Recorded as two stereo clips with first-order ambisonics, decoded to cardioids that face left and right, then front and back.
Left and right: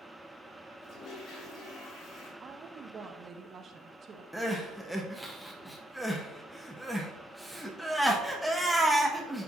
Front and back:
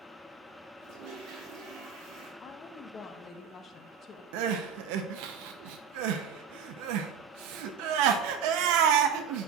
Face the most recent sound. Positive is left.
turn(degrees=180)